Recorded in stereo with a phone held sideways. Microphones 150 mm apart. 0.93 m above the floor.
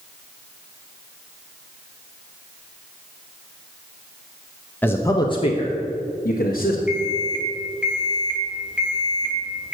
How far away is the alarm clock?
About 1.9 m.